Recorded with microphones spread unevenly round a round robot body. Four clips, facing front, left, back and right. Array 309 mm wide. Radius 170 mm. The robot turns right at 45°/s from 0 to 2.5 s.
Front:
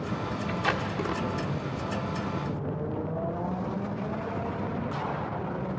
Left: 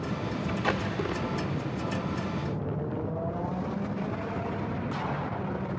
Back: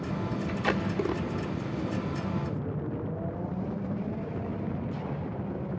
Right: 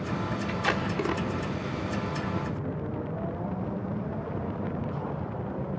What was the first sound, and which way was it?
Tape being pulled, 170° left.